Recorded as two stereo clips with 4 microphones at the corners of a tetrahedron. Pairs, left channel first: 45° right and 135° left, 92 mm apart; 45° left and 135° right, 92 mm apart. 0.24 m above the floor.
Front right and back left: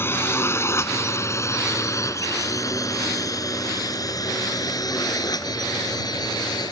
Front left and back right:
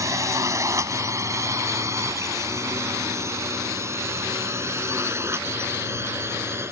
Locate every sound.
0.0 s a drone: 100° right; by 6.7 s 80° right